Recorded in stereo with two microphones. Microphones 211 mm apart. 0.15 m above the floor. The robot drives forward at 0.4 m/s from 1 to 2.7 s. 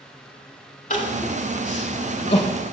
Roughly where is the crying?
Left.